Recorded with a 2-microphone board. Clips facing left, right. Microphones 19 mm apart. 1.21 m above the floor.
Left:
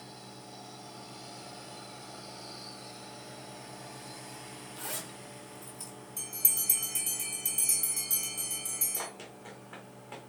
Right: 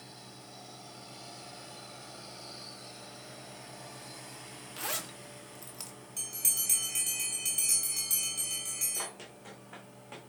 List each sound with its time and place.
4.8 s a zipper: 60° right (ahead or behind), 1.3 m
6.2 s a bell: 30° right (ahead or behind), 2.5 m
9.0 s running footsteps: 5° left (ahead or behind), 3 m